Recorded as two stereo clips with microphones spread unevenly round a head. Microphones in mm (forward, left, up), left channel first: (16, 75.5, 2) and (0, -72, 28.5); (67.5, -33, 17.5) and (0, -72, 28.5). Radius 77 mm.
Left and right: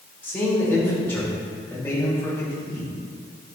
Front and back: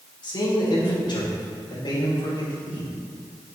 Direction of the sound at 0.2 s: 5° left.